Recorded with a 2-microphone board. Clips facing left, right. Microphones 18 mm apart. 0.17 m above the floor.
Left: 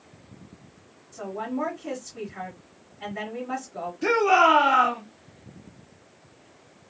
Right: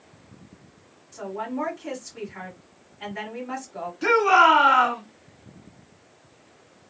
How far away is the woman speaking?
About 1.5 m.